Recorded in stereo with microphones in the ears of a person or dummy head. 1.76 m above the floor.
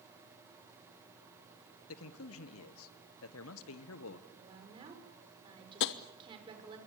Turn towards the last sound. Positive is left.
turn(degrees=60)  # may be behind; listen again after turning